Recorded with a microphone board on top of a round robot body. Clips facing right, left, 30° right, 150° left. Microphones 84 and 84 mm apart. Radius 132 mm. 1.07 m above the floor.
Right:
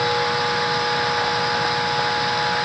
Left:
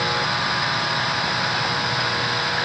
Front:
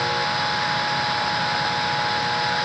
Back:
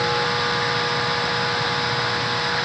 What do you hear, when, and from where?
Only background noise.